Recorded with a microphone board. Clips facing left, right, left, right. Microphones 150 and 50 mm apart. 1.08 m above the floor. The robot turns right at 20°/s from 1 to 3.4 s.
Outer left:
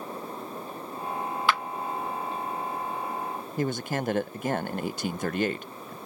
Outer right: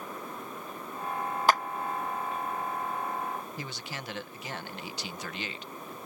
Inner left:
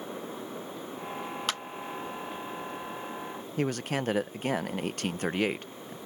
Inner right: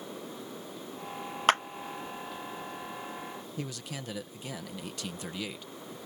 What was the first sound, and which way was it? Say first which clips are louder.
A clap: outer right 3 dB, inner right 11 dB; 40° right (ahead or behind).